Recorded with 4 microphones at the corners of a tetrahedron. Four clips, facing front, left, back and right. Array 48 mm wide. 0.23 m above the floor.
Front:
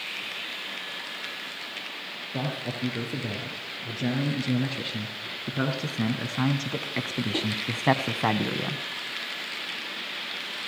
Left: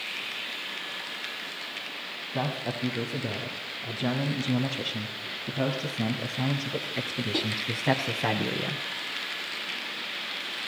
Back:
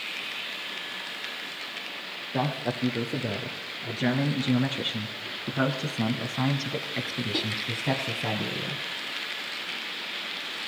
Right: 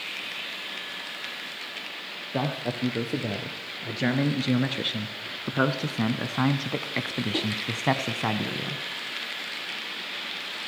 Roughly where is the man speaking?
Behind right.